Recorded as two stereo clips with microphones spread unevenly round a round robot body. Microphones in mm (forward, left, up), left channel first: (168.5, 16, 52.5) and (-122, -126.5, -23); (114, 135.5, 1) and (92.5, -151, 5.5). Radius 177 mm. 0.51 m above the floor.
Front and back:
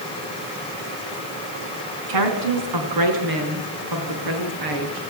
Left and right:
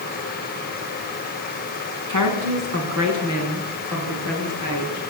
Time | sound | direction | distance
2.1 | a woman speaking | 145° right | 5 m